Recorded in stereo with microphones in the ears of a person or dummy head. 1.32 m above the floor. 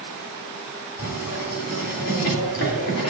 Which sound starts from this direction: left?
Writing, at 1.0 s.